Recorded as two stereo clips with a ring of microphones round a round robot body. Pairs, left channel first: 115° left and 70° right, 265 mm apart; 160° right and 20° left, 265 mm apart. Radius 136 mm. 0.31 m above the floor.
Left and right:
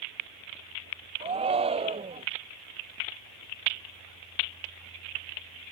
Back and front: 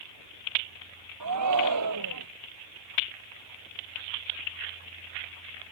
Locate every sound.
1.2 s a shout: straight ahead